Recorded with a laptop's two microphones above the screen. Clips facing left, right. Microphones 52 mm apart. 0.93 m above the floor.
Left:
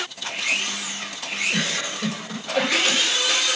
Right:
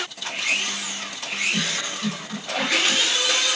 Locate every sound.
1.5 s a giggle: 80° left, 3.5 m